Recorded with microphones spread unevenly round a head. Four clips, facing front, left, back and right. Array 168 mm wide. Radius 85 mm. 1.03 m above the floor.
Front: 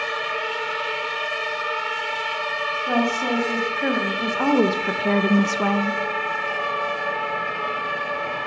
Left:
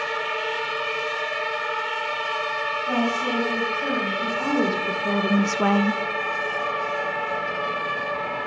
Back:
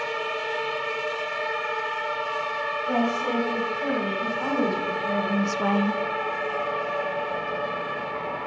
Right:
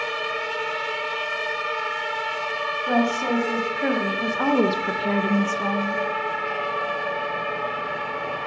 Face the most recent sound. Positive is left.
turn(degrees=95)